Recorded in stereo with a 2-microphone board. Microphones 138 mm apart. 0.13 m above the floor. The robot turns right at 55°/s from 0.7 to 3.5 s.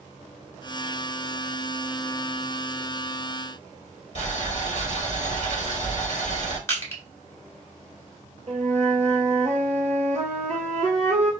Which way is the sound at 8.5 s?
55° right (ahead or behind).